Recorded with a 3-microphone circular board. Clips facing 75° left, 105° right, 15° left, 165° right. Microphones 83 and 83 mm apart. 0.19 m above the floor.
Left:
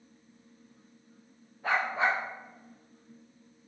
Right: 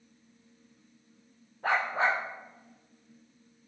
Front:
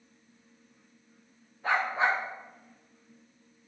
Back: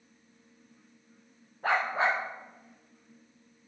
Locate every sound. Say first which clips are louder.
1.6 s a dog barking: right 1 dB, even; 135° right, 5 m